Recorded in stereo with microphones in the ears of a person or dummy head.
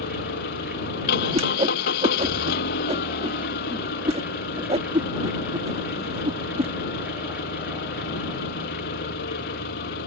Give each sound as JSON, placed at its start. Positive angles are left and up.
{"t": 0.0, "sound": "an engine running", "side_deg": 50}
{"t": 1.3, "sound": "a whoosh", "side_deg": -25}